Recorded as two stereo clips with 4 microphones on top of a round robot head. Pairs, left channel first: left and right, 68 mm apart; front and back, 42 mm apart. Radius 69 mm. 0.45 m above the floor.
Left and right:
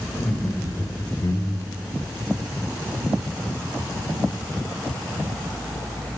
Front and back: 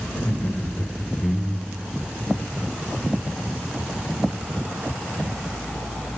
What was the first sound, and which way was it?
Laughter, 35° left.